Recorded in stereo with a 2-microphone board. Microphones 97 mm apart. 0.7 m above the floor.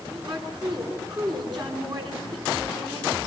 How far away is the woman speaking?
About 10 m.